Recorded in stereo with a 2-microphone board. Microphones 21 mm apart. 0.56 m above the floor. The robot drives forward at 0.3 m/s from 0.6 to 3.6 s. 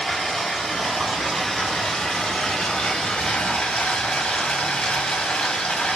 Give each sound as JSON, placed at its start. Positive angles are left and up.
{"t": 0.0, "sound": "running water", "side_deg": 30, "distance_m": 1.2}